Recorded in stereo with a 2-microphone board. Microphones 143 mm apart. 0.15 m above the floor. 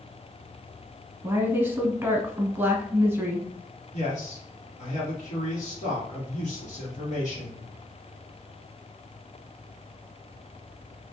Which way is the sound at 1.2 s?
15° right (ahead or behind).